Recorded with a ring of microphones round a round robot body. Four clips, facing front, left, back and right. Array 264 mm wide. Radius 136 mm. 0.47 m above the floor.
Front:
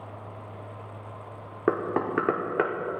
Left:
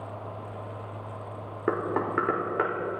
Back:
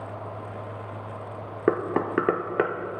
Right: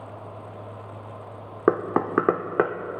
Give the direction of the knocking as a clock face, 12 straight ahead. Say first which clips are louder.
Right 5 dB, back 2 dB; 4 o'clock.